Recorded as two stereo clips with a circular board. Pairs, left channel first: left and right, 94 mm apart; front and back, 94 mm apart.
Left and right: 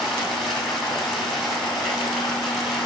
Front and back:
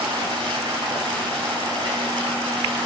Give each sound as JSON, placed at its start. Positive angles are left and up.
{"t": 0.0, "sound": "running water", "azimuth_deg": 180, "distance_m": 3.0}